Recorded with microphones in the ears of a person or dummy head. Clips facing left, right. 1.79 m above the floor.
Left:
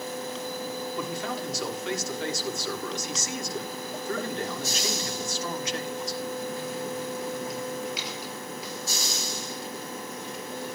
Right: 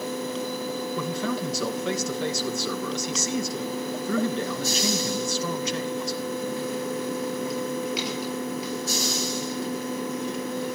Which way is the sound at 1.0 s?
80° right.